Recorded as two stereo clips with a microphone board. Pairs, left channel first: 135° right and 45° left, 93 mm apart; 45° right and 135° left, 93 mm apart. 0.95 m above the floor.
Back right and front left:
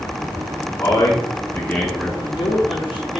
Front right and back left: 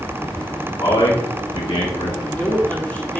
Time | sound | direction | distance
0.8 | a man speaking | 90° right | 1.0 m
2.2 | a man speaking | 115° right | 1.2 m